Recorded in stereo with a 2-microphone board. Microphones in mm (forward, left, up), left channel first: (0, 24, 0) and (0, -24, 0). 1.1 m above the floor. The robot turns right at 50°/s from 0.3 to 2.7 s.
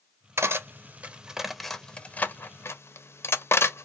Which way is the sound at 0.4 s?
55° right (ahead or behind).